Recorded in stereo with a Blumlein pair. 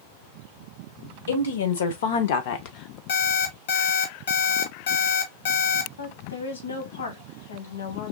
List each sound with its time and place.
1.3 s a woman speaking: 65° left, 1.5 m; by 3.0 s 30° left, 0.8 m
3.1 s an alarm clock: 55° left, 1.5 m
6.0 s a woman speaking: 65° left, 1.7 m